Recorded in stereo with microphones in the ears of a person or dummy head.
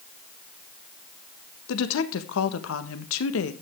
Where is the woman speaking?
65° left (ahead or behind), 1.5 m.